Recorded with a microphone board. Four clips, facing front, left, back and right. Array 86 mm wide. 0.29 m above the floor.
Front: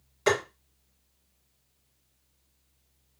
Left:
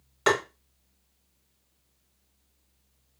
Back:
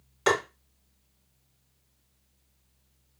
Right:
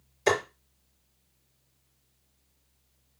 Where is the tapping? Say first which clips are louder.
Left 1 dB, even; 120° left, 3 m.